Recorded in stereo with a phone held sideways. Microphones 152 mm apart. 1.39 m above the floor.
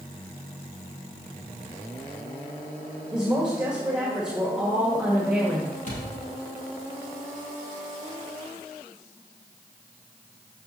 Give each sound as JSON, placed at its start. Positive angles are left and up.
{"t": 3.1, "sound": "a woman speaking", "side_deg": -5, "distance_m": 1.7}
{"t": 5.9, "sound": "a thud", "side_deg": 55, "distance_m": 3.5}